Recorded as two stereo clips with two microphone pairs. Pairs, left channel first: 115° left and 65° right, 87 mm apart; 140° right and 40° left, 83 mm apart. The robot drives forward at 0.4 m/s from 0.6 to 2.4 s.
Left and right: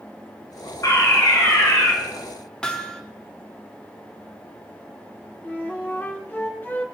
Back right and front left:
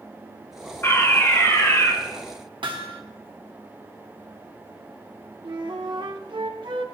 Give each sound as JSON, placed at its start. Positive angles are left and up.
{"t": 0.8, "sound": "a fire alarm", "azimuth_deg": 160, "distance_m": 3.0}
{"t": 2.6, "sound": "hammering", "azimuth_deg": 40, "distance_m": 1.0}
{"t": 5.4, "sound": "a flute", "azimuth_deg": 50, "distance_m": 1.0}